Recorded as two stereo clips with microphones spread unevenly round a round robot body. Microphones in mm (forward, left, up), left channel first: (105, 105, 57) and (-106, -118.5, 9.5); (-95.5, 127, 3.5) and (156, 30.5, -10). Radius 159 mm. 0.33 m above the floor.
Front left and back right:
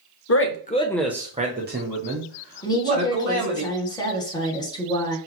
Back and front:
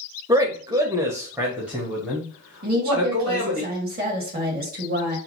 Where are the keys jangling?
No keys jangling in this recording.